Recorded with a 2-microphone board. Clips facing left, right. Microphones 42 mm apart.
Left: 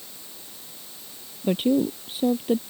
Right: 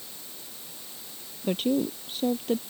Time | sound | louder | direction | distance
1.4 | a woman speaking | left 4 dB | 5° left (ahead or behind) | ?